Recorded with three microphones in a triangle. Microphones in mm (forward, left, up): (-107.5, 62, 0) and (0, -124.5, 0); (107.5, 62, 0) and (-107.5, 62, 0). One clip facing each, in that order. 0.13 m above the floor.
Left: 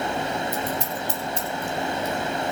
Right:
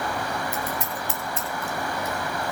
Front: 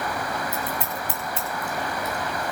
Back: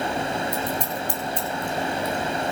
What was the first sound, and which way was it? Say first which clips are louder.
Scissors: left 3 dB, back 3 dB; 80° left.